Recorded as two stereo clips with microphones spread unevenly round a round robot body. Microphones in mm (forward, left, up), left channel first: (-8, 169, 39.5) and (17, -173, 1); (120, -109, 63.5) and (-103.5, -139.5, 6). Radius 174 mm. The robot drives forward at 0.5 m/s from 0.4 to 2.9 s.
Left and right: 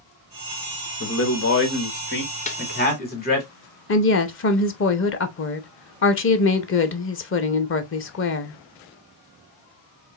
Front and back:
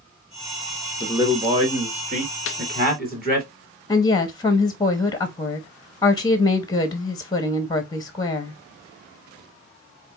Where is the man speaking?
130° left, 1.2 m; by 3.5 s 160° left, 1.8 m.